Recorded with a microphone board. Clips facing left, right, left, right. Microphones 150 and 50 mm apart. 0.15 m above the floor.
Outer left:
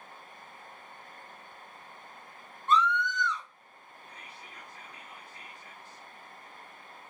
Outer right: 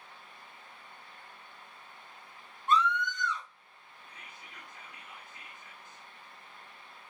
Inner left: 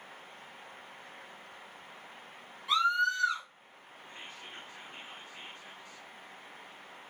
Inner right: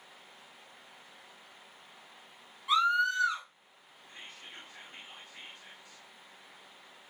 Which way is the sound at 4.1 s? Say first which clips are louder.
Outer left 3 dB, inner left 2 dB; 35° left (ahead or behind).